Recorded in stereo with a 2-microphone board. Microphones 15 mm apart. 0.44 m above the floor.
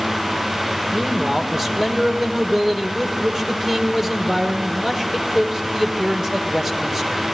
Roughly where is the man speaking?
Right.